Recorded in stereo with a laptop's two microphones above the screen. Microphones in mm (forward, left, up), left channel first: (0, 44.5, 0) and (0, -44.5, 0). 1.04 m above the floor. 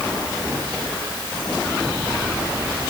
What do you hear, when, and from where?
Only background noise.